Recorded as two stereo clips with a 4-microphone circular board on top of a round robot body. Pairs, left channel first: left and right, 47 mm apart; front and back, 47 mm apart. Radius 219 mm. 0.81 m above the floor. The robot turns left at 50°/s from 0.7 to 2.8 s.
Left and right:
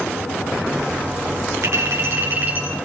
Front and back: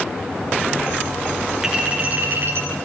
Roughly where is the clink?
Right.